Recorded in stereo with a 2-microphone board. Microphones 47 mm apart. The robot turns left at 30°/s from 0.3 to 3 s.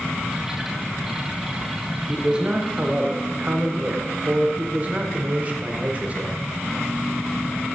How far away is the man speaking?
About 0.8 m.